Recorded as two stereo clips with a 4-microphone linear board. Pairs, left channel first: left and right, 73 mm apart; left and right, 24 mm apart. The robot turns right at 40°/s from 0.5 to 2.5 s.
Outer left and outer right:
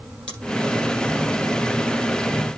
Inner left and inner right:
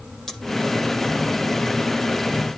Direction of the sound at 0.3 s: 15° left (ahead or behind).